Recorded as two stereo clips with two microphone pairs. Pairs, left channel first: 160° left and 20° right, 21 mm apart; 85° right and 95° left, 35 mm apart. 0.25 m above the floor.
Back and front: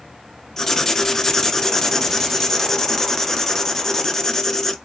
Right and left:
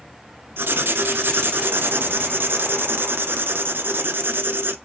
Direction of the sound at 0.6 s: 100° left.